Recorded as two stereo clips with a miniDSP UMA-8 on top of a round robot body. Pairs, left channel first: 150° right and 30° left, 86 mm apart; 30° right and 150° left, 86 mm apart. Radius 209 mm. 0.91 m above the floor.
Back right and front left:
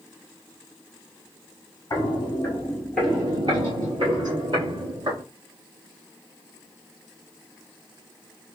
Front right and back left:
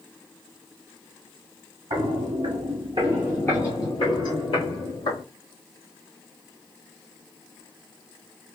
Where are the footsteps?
155° left, 1.4 m; by 5.2 s 10° right, 1.8 m.